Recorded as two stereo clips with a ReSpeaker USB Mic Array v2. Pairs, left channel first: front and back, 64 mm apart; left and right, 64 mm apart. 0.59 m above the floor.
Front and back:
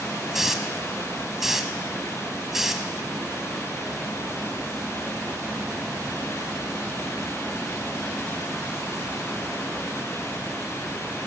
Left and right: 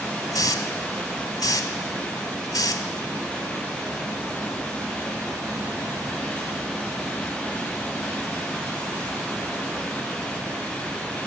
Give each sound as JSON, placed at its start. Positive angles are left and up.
{"t": 0.3, "sound": "a hiss", "azimuth_deg": 95, "distance_m": 1.0}